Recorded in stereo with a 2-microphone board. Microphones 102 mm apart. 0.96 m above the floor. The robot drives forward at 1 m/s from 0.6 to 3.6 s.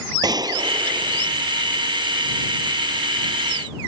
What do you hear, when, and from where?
0.2 s a gunshot: 40° right (ahead or behind); by 1.4 s 45° right (ahead or behind)